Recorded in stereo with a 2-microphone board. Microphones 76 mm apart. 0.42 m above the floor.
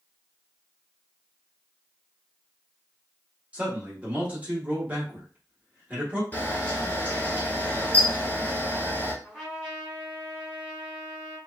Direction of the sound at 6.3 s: 25° left (ahead or behind).